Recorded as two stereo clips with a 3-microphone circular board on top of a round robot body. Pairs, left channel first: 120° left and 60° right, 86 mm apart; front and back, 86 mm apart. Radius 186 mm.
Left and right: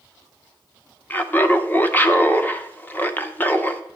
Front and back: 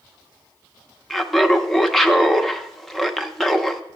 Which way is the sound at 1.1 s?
85° left.